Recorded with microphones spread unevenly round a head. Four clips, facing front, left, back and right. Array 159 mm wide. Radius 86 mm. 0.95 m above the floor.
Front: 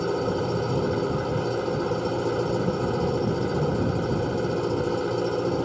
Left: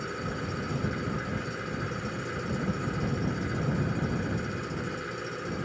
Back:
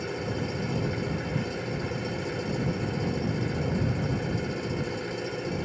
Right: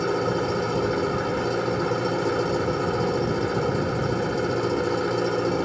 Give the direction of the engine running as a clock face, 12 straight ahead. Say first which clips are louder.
Right 11 dB, front 7 dB; 2 o'clock.